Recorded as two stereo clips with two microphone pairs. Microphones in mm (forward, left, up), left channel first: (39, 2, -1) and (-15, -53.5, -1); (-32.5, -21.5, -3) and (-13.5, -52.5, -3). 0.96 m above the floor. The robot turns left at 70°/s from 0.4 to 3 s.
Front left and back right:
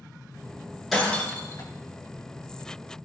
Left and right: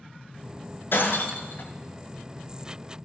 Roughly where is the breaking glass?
Behind left.